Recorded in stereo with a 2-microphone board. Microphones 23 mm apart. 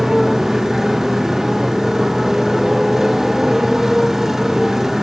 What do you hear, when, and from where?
0.0 s a motorcycle: 15° right (ahead or behind)